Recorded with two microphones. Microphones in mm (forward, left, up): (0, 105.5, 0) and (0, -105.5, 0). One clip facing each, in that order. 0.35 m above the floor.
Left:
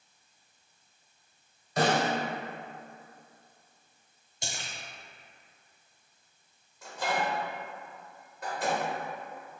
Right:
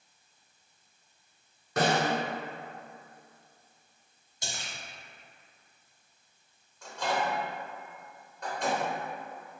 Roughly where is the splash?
Left.